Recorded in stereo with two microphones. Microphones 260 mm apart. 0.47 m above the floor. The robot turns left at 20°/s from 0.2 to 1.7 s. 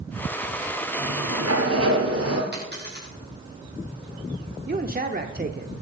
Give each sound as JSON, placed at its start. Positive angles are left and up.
{"t": 1.0, "sound": "a sliding door", "side_deg": -70, "distance_m": 2.5}
{"t": 2.5, "sound": "a dropped coin", "side_deg": -40, "distance_m": 5.5}
{"t": 4.7, "sound": "a man speaking", "side_deg": -35, "distance_m": 0.8}